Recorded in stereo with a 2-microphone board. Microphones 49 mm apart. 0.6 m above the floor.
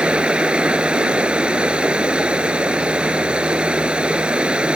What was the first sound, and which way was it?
Running water, 20° right (ahead or behind).